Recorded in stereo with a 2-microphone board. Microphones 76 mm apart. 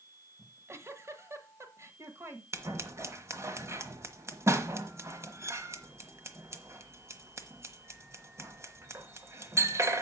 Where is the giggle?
40° right (ahead or behind), 1.5 m.